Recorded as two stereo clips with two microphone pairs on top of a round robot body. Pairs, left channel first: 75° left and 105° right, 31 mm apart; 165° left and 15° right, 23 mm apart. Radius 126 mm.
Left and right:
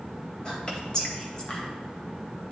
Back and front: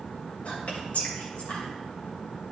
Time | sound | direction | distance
0.5 | whispering | 145° left | 2.5 m